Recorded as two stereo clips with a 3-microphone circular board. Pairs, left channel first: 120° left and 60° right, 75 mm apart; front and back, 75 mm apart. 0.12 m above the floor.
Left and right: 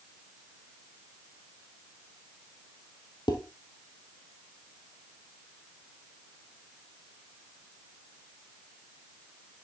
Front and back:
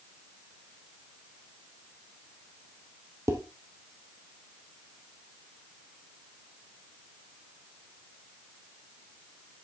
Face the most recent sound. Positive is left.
turn(degrees=130)